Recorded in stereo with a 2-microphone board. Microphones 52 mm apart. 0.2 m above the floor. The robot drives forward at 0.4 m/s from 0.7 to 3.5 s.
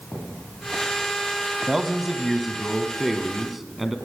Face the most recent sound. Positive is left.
turn(degrees=-5)  # may be behind; listen again after turning